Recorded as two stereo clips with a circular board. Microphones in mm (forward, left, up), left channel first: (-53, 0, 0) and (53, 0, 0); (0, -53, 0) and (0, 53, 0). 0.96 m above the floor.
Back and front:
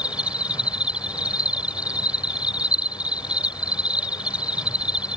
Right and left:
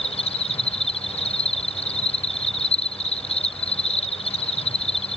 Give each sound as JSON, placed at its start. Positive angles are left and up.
{"t": 0.0, "sound": "an insect", "azimuth_deg": -80}